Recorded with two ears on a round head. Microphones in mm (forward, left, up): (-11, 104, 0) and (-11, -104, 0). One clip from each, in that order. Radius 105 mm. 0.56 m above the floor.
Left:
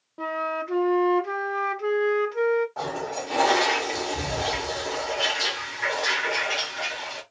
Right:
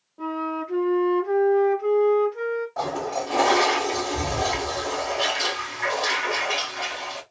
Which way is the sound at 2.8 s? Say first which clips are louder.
Right 3 dB; centre (ahead or behind).